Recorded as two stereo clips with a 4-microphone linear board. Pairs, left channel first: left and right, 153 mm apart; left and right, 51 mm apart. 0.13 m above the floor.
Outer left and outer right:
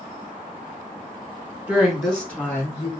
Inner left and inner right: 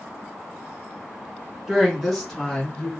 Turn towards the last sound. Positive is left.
turn(degrees=20)  # may be behind; listen again after turning